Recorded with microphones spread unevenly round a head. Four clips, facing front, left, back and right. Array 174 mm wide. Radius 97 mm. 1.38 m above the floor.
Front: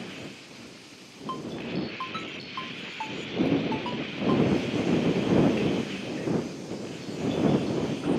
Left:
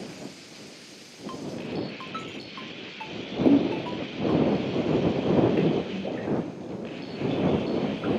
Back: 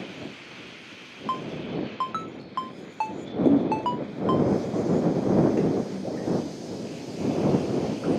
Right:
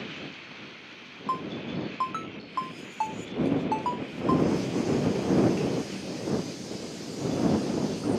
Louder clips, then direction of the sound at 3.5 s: Left 7 dB, back 9 dB; 135° left.